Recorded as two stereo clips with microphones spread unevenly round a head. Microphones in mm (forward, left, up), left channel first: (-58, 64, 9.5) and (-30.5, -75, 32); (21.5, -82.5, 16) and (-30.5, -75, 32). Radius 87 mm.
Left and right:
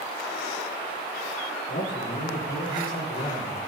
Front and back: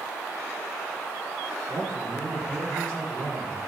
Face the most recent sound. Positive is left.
turn(degrees=60)